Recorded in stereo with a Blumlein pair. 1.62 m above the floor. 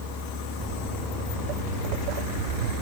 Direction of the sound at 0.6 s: 20° right.